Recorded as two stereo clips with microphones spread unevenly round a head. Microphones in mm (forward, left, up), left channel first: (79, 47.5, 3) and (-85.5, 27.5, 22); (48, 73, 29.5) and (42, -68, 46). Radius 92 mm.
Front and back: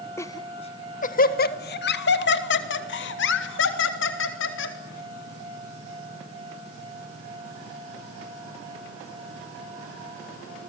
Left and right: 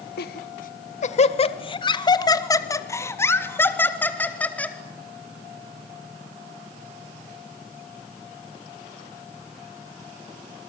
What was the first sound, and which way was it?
Laughter, 85° left.